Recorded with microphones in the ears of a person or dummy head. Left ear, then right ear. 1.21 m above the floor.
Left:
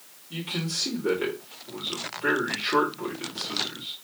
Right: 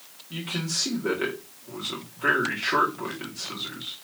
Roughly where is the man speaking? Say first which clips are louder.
Right 1 dB; right.